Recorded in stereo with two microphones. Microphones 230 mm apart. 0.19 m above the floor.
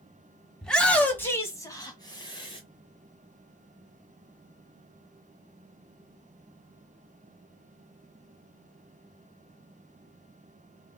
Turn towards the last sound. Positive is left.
turn(degrees=20)  # may be behind; listen again after turning